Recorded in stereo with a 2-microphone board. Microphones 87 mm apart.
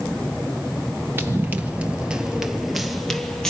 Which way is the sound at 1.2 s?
30° right (ahead or behind).